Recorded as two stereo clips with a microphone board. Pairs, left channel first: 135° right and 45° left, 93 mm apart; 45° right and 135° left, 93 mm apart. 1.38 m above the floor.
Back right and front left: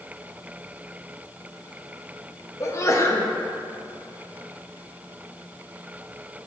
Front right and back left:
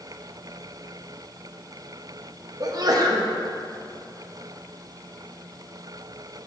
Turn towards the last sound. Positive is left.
turn(degrees=175)